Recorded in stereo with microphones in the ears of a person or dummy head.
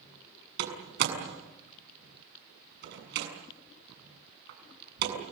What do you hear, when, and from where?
0.6 s a door slam: 60° right (ahead or behind), 7 m